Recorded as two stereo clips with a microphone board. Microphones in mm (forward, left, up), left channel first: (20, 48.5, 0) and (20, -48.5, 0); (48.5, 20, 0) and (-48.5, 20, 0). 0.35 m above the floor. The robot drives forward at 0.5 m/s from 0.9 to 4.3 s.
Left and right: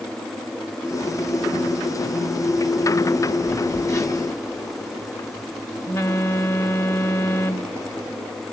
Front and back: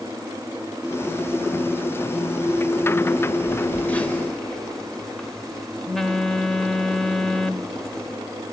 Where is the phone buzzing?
45° left, 1.0 m; by 8.2 s 80° left, 0.9 m.